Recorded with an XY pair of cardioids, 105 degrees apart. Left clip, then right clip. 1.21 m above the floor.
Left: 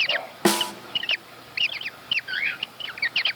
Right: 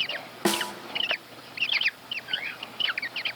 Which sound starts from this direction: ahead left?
A snare drum, at 0.5 s.